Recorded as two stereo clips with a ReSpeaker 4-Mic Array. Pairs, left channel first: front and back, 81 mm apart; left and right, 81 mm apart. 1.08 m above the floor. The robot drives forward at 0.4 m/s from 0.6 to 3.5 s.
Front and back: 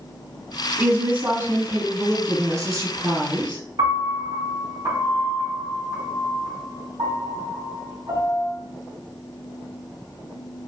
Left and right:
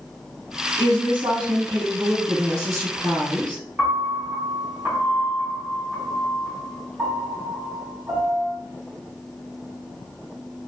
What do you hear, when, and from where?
0.8 s a woman speaking: 110° right, 1.4 m; by 3.6 s 140° right, 2 m
3.8 s a piano: 165° right, 2.0 m